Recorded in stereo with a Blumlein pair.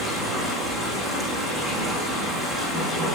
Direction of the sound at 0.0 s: Straight ahead.